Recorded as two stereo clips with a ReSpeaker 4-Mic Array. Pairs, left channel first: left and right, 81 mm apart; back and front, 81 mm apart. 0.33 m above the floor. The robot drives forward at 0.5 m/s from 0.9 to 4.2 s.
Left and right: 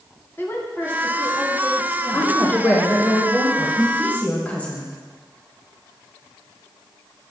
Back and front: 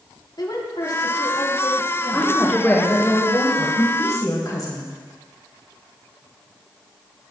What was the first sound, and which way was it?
A woman speaking, 150° left.